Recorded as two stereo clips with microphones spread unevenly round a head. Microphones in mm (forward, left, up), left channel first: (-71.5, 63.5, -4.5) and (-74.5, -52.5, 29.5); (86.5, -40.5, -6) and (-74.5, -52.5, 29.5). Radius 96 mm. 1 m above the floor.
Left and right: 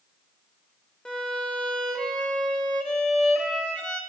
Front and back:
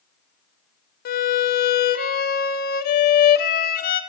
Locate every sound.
1.1 s a violin: 15° right, 0.5 m